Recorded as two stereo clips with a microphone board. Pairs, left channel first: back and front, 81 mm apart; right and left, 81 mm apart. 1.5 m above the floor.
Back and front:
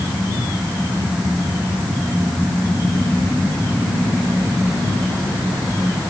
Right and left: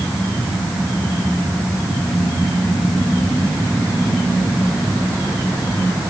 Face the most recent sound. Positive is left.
No sound to turn to.